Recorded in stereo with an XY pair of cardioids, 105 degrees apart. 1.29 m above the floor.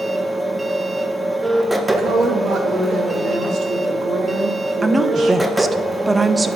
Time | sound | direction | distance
0.0 | a machine running | 10° right | 1.4 m
1.9 | a woman speaking | 65° right | 2.5 m
4.8 | a woman speaking | 25° right | 1.0 m